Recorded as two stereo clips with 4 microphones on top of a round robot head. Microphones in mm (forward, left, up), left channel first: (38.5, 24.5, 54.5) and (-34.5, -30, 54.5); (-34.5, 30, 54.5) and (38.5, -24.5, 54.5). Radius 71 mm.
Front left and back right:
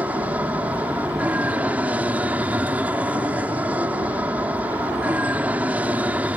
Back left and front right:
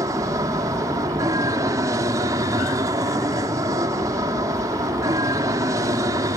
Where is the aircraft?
75° right.